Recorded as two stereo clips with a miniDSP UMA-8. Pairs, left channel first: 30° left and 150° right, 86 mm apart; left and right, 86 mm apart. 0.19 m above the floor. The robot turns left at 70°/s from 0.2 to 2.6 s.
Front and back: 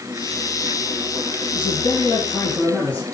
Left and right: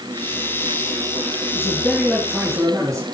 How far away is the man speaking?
About 3 m.